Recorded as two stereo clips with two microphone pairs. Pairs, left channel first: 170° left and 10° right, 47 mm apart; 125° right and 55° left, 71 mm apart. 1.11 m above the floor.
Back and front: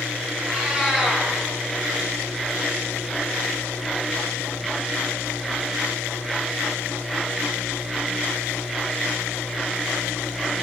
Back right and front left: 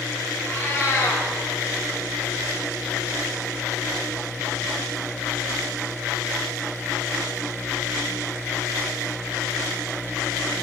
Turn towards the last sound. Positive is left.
turn(degrees=-80)